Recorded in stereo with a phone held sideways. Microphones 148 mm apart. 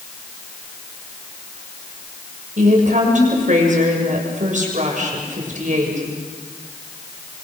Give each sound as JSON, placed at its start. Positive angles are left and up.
{"t": 2.6, "sound": "a woman speaking", "side_deg": -60, "distance_m": 7.0}